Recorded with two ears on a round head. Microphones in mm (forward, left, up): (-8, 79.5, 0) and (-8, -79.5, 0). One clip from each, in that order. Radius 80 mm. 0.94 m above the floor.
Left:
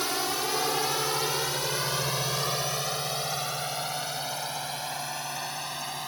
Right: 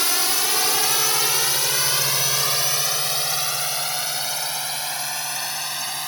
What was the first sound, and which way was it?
A drone, 65° right (ahead or behind).